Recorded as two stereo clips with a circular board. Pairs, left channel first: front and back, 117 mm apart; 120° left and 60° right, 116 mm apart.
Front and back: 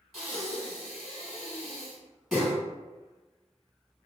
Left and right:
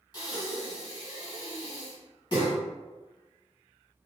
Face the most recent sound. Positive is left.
turn(degrees=90)